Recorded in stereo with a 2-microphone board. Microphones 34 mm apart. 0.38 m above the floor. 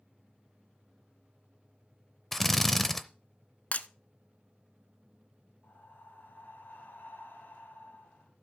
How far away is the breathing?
About 2 m.